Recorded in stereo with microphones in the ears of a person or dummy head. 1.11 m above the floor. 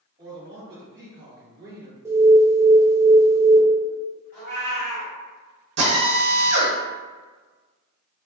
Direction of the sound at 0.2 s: 30° right (ahead or behind).